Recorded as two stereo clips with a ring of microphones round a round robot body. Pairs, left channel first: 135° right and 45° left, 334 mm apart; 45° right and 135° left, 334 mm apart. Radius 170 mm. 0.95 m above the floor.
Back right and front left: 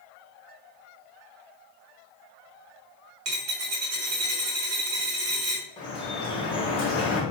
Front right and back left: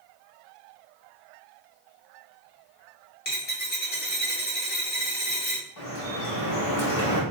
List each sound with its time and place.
3.2 s a dropped coin: 10° left, 0.9 m
5.8 s dripping: 60° right, 1.1 m